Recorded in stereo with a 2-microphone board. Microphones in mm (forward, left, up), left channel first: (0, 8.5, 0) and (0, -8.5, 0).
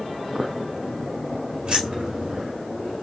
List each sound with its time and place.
1.6 s keys jangling: 80° right, 2.0 m